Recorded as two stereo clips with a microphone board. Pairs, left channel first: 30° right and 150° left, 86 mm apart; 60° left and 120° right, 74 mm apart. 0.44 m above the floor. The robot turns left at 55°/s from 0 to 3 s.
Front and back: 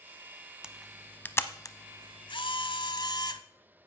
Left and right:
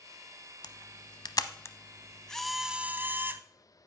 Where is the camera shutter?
70° left, 0.6 m; by 3.4 s 60° right, 0.6 m.